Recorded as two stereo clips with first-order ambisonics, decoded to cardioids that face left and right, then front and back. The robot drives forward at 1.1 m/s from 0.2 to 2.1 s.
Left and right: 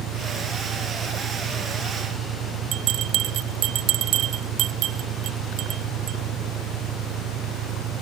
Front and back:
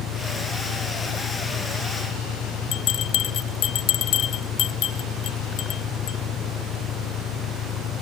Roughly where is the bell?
Ahead right.